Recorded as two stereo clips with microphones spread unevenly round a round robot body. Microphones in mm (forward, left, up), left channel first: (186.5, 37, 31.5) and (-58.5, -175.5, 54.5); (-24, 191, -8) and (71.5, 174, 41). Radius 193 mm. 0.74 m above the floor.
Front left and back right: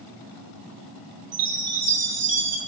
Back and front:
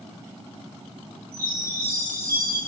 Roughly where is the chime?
Right.